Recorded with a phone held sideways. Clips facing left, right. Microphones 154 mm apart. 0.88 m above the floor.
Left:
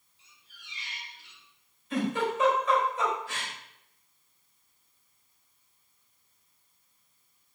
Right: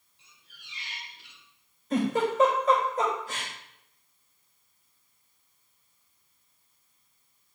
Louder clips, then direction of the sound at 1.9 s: Right 3 dB; 40° right (ahead or behind).